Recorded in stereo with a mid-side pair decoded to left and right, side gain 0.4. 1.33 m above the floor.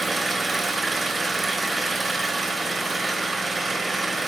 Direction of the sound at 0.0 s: 25° right.